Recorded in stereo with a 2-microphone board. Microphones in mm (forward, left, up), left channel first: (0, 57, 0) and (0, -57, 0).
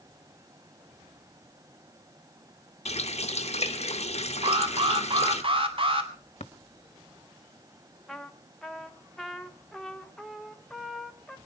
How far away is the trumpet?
About 1.3 m.